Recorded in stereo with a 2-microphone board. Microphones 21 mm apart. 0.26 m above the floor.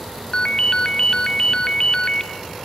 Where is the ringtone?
35° left (ahead or behind), 0.6 m.